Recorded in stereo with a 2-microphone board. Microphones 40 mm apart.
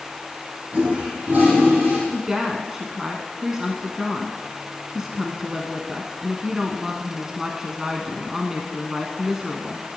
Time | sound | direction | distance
0.7 | a toilet flushing | 50° right (ahead or behind) | 4.5 m
2.1 | a woman speaking | 15° right (ahead or behind) | 1.1 m